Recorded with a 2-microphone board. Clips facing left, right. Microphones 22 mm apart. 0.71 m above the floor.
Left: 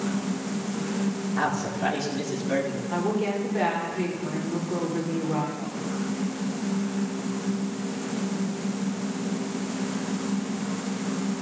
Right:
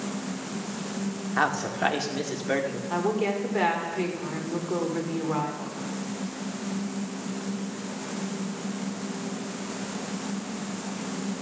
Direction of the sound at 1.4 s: 45° right (ahead or behind).